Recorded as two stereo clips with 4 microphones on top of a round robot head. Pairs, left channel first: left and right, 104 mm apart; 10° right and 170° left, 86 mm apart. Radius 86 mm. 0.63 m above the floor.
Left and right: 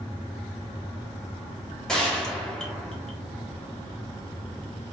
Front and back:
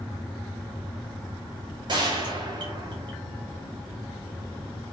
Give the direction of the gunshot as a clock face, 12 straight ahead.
6 o'clock.